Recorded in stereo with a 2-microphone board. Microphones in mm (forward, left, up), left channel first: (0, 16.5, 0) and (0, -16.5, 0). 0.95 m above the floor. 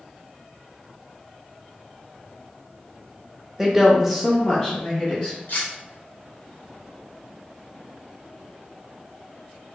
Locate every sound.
3.6 s a woman speaking: 10° right (ahead or behind), 0.9 m; by 5.4 s 10° left (ahead or behind), 1.7 m
5.5 s cutlery clinking: 70° left (ahead or behind), 1.1 m